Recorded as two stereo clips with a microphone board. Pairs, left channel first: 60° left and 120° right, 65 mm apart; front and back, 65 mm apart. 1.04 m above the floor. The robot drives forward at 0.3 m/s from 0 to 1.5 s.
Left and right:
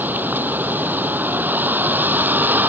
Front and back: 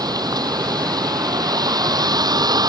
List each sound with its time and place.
0.0 s a vehicle: straight behind